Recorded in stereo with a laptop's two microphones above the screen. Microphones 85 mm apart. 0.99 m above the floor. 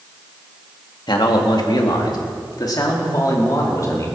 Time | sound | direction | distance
1.1 | a man speaking | 65° left (ahead or behind) | 2.0 m